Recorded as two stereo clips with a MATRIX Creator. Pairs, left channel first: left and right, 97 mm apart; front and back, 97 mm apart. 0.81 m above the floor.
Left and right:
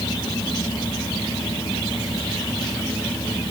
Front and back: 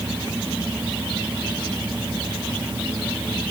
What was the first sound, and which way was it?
Only background noise.